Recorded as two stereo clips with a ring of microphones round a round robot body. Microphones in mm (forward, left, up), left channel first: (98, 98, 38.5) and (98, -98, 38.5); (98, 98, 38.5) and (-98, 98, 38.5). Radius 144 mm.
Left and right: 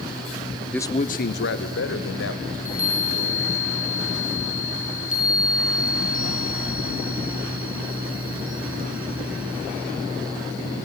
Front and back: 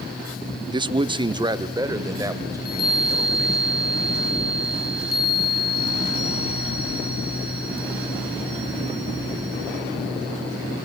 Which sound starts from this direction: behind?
A man speaking, at 0.7 s.